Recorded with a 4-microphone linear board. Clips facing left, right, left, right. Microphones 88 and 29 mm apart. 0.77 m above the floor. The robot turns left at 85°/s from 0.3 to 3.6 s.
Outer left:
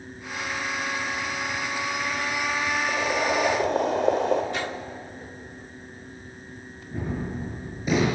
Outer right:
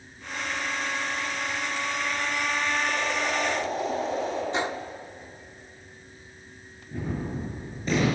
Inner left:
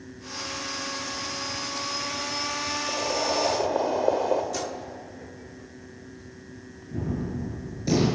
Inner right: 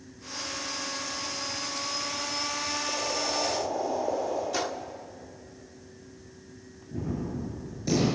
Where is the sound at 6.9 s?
10° left (ahead or behind), 8.5 m.